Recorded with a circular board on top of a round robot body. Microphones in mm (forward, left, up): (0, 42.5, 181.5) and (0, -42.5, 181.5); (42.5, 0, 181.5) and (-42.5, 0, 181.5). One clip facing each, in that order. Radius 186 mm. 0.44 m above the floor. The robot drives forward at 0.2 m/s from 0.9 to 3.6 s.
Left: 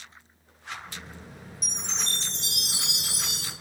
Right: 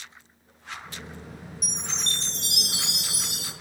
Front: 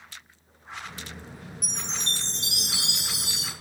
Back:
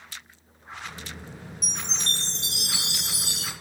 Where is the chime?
65° right, 1.9 m; by 3.5 s 80° right, 1.8 m.